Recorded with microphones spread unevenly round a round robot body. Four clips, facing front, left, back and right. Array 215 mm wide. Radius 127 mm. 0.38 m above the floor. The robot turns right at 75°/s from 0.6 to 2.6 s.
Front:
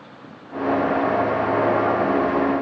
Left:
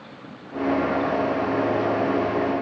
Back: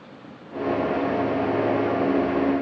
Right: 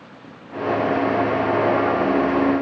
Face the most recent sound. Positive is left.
No sound to turn to.